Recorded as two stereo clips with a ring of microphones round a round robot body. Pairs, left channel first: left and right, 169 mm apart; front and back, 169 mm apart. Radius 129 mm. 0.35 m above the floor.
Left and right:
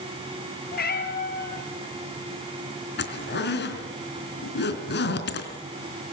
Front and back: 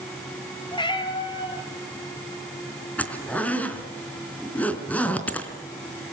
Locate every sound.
0.7 s a cat meowing: 65° left, 4 m
3.0 s a zipper: 80° left, 4 m